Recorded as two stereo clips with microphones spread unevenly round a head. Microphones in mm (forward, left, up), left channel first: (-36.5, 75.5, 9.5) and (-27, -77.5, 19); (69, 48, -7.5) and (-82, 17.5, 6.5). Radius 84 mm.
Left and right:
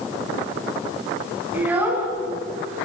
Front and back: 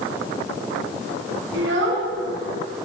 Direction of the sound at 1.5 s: 165° right.